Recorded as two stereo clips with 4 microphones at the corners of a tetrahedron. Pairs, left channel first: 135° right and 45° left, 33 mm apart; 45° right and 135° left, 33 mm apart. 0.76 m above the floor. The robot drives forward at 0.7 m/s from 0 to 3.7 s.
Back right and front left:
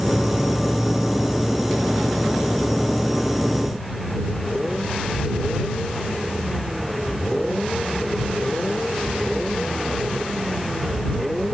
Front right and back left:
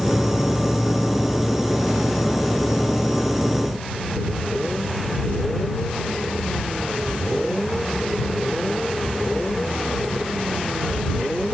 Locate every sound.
Only background noise.